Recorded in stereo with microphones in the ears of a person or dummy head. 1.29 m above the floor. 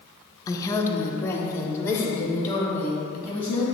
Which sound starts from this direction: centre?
A woman speaking, at 0.5 s.